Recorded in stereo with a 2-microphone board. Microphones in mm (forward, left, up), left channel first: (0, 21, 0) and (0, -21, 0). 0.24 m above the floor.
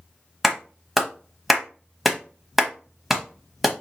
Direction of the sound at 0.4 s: 5° right (ahead or behind).